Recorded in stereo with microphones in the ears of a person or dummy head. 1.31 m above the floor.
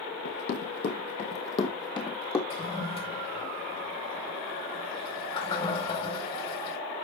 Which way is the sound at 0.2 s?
60° left (ahead or behind).